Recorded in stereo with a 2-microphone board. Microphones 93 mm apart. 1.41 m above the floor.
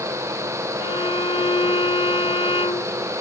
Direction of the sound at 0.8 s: 75° left (ahead or behind).